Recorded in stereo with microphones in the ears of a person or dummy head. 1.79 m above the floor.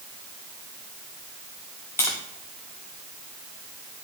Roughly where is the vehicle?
I don't hear a vehicle.